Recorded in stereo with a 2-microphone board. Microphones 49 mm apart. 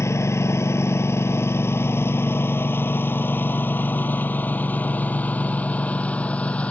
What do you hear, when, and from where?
0.0 s a lawn mower: 75° left (ahead or behind); by 6.7 s 25° left (ahead or behind)